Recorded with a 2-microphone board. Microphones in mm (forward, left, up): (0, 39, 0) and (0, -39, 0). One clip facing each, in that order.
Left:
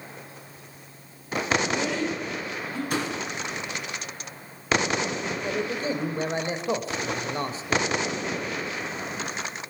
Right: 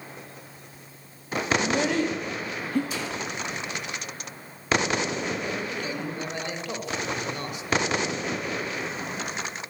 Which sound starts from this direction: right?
A child speaking, at 1.6 s.